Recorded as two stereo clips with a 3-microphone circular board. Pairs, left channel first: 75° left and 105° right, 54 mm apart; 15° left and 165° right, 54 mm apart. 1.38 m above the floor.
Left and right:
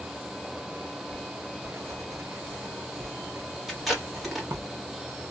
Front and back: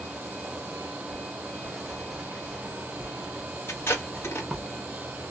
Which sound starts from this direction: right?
Writing, at 1.1 s.